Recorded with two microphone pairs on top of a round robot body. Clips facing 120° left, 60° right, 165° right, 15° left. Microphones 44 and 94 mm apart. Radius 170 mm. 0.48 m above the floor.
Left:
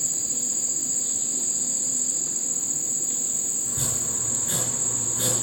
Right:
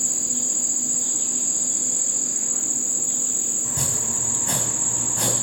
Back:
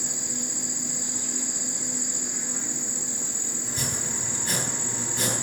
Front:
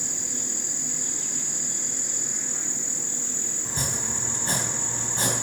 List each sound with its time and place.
0.0 s an insect: 80° right, 1.2 m
3.6 s chopping: 35° right, 3 m